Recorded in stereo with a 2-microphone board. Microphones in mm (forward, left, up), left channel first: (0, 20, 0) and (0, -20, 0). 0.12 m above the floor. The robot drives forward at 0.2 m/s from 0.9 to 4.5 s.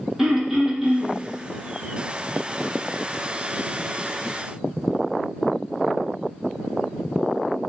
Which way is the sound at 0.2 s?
10° right (ahead or behind).